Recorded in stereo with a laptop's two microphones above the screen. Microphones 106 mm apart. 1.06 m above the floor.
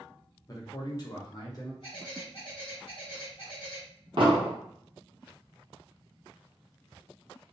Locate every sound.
0.5 s a man speaking: 35° left (ahead or behind), 0.6 m
1.8 s a bird: 55° left (ahead or behind), 1.1 m
4.2 s an explosion: 50° right (ahead or behind), 0.9 m